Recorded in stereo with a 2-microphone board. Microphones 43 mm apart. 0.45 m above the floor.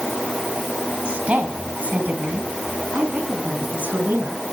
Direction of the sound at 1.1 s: 30° right (ahead or behind).